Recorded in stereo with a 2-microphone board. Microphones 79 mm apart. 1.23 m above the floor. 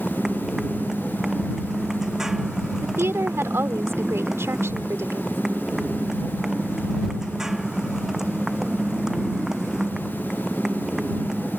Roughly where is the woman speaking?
Right.